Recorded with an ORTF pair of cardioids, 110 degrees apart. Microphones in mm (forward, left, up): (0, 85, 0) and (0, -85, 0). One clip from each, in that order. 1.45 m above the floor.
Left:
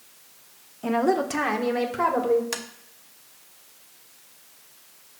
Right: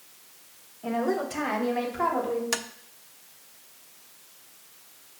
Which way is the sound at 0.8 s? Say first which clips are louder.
Left 5 dB; 45° left.